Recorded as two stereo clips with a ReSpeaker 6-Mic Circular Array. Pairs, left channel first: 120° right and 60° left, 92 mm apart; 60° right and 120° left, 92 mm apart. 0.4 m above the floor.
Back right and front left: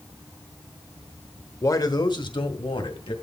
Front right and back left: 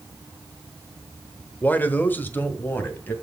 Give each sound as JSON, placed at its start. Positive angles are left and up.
{"t": 1.6, "sound": "a man speaking", "azimuth_deg": -115, "distance_m": 1.0}